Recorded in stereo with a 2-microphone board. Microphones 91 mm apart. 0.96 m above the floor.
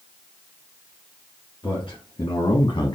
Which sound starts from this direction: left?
A man speaking, at 1.6 s.